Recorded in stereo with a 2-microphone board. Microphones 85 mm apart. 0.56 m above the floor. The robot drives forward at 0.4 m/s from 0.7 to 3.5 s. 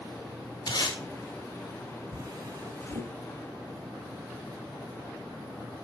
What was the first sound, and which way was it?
Tape being pulled, 60° left (ahead or behind).